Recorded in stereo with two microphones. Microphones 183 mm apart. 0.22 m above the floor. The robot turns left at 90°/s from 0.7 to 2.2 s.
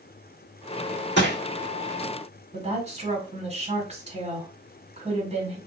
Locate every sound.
1.2 s crushing: 90° left, 1.7 m; by 1.4 s 70° left (ahead or behind), 1.7 m
2.5 s a woman speaking: 40° right (ahead or behind), 1.6 m